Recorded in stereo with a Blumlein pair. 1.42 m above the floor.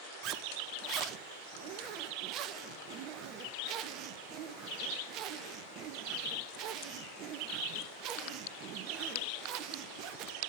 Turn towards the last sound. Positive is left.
turn(degrees=-35)